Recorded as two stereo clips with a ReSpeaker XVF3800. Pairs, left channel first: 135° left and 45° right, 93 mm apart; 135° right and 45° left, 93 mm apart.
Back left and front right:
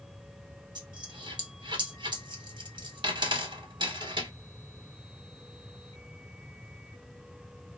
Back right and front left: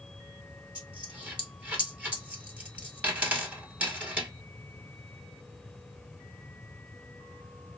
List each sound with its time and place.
0.8 s a dropped coin: 30° right, 1.2 m